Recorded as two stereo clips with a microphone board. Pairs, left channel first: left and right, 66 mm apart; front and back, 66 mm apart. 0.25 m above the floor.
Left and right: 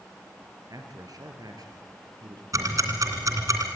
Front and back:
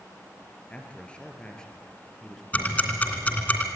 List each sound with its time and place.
0.7 s a man speaking: 70° right, 3.5 m; by 2.4 s 85° right, 4 m
2.5 s ticking: 65° right, 2.5 m